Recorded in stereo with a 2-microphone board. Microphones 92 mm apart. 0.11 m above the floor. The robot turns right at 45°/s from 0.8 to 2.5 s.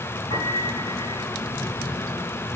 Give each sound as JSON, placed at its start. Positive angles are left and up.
{"t": 0.3, "sound": "a piano", "side_deg": 70, "distance_m": 9.5}